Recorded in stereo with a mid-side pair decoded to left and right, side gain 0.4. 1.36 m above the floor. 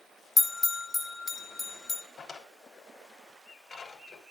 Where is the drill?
I don't hear a drill.